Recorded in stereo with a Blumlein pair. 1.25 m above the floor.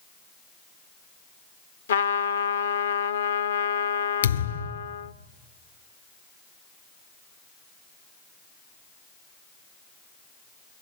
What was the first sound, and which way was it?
A trumpet, 70° left.